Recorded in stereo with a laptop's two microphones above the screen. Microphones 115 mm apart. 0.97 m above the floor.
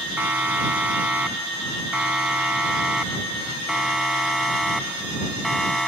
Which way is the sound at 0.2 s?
15° right (ahead or behind).